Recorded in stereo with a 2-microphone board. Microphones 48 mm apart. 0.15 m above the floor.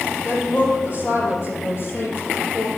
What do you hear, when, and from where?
0.2 s a woman speaking: 65° left (ahead or behind), 5.5 m; by 2.7 s 45° left (ahead or behind), 3.5 m